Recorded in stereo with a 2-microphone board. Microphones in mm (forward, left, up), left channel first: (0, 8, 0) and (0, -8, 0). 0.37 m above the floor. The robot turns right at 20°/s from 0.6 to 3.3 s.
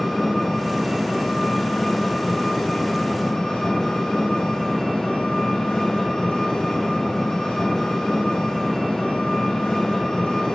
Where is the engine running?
20° left, 4.5 m; by 10.6 s 75° left, 4.5 m.